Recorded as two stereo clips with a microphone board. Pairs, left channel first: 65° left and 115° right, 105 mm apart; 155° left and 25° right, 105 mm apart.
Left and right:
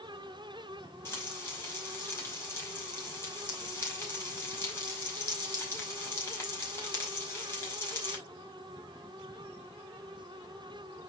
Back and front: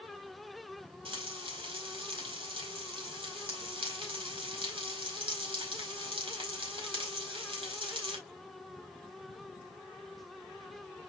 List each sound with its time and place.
1.1 s frying: straight ahead, 4.5 m